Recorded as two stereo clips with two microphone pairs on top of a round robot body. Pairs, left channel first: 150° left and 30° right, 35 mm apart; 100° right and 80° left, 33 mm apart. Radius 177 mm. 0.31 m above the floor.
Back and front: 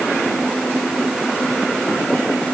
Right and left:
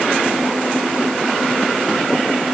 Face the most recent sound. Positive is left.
No sound to turn to.